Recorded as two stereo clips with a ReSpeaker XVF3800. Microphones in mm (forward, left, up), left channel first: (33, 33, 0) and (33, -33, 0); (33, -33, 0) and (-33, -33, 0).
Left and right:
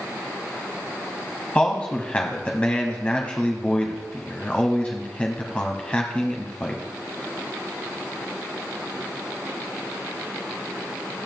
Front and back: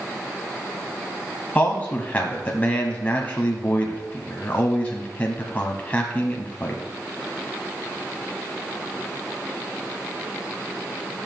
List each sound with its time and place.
1.6 s a man speaking: 40° left, 1.1 m